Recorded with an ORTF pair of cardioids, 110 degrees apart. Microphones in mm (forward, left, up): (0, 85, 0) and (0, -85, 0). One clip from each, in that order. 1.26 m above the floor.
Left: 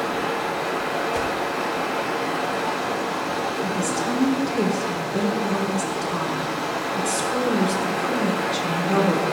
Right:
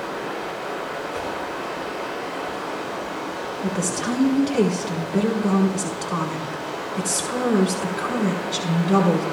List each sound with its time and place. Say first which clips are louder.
0.0 s running water: left 4 dB; 65° left, 7.5 m
1.1 s a whoosh: left 4 dB; 45° left, 4 m
3.6 s a woman speaking: left 2 dB; 35° right, 4 m